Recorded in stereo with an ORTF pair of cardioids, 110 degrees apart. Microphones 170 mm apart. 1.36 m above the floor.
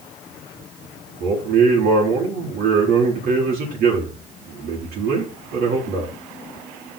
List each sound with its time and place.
1.2 s a man speaking: 65° right, 3.5 m